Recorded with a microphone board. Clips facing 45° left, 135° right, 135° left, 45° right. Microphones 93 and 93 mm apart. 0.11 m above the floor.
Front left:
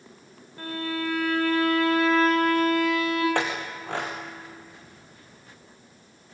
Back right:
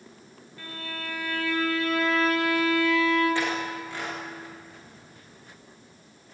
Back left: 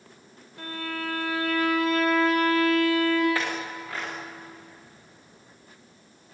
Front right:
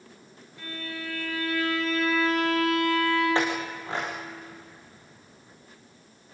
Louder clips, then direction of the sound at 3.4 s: Even, front right 3 dB; 20° left.